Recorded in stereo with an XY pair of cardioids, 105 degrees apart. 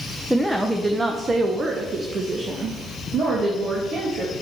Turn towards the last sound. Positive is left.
turn(degrees=-60)